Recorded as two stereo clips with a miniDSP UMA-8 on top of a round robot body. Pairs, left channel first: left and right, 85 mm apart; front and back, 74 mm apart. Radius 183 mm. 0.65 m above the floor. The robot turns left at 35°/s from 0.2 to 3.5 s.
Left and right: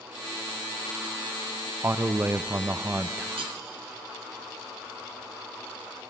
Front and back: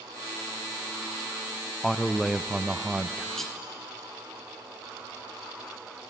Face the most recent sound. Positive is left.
turn(degrees=-90)